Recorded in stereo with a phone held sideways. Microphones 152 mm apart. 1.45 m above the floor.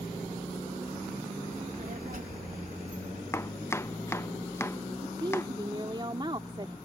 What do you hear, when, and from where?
1.5 s a child speaking: 60° right (ahead or behind)
3.3 s chopping: 20° left (ahead or behind)
5.0 s a woman speaking: 30° right (ahead or behind)